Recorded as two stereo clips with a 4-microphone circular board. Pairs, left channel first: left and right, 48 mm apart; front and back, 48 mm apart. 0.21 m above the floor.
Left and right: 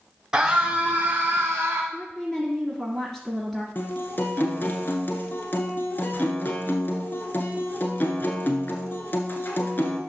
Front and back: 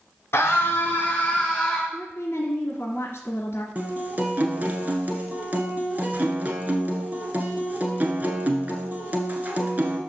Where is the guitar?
130° left, 1.5 m.